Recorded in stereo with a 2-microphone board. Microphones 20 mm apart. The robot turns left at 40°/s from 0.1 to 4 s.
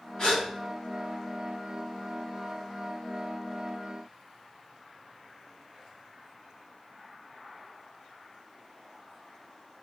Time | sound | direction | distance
0.2 | a gasp | 55° left (ahead or behind) | 2.5 m